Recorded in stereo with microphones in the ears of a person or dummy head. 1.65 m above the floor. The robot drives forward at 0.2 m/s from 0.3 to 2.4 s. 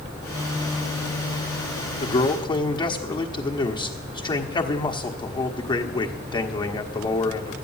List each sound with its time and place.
2.0 s a man speaking: 25° left (ahead or behind), 1.0 m